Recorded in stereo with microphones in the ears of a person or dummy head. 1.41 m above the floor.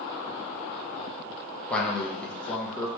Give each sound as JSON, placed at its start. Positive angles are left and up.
{"t": 1.7, "sound": "a man speaking", "side_deg": 5, "distance_m": 0.7}